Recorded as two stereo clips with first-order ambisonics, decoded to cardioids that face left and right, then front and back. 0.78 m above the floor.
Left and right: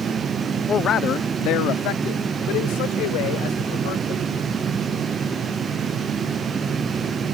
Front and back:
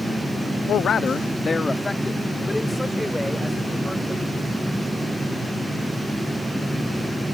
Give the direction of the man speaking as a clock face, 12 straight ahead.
11 o'clock.